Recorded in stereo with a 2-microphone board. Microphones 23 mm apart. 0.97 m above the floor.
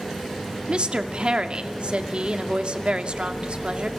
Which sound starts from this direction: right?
A woman speaking, at 0.7 s.